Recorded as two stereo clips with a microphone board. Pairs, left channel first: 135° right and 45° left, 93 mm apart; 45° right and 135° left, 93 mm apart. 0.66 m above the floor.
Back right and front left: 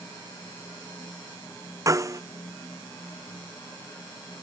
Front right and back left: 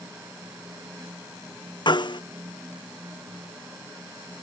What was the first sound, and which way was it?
A snare drum, 10° right.